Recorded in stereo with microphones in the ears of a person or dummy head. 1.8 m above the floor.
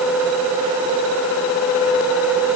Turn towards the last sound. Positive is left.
No sound to turn to.